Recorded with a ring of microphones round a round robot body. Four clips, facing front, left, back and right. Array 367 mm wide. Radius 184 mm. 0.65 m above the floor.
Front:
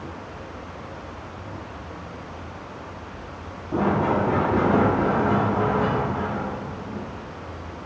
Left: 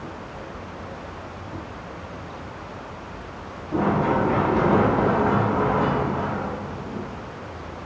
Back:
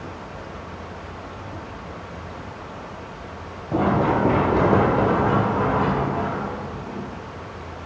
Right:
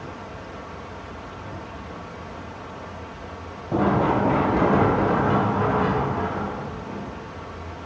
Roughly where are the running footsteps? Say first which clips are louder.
Right 1 dB, back 2 dB; behind right.